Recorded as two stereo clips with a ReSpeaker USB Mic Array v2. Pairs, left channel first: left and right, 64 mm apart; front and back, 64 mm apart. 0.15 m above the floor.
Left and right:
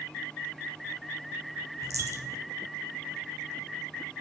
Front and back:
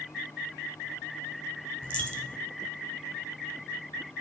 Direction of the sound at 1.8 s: 70° right.